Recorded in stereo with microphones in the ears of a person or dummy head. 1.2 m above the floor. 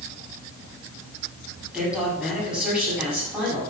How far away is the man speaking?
About 8 m.